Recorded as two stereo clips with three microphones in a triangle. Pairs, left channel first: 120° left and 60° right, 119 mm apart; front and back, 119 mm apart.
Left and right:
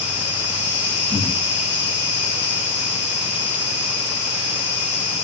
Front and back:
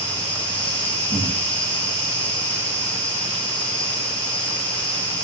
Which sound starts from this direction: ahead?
An insect, at 0.0 s.